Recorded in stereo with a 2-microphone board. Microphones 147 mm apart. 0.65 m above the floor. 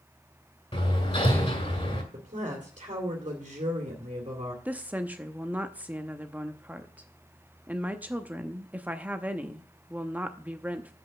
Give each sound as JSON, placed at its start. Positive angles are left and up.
{"t": 0.7, "sound": "hammering", "side_deg": 40, "distance_m": 2.0}
{"t": 2.1, "sound": "a woman speaking", "side_deg": -50, "distance_m": 2.0}
{"t": 4.7, "sound": "a woman speaking", "side_deg": -10, "distance_m": 0.7}